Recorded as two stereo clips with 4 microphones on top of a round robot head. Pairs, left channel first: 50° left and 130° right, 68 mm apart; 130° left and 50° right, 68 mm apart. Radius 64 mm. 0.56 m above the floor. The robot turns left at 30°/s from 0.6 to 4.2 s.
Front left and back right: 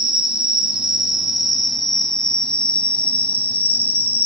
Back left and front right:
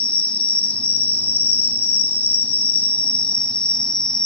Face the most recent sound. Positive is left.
turn(degrees=60)